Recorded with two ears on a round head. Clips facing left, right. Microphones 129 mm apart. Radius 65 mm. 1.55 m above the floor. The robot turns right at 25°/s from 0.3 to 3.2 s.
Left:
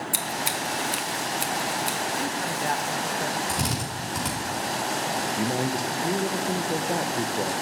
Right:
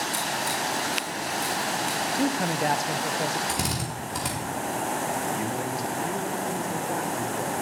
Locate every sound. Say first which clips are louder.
0.1 s scissors: right 1 dB; 70° left (ahead or behind), 2.5 m
2.2 s a man speaking: right 4 dB; 45° right (ahead or behind), 1.1 m; by 3.4 s 20° right (ahead or behind), 1.1 m
3.5 s a drill: left 1 dB; centre (ahead or behind), 4 m
5.4 s a man speaking: left 3 dB; 35° left (ahead or behind), 1.3 m